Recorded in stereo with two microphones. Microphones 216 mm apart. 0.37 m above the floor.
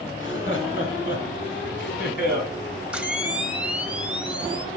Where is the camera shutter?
5° right (ahead or behind), 0.9 m.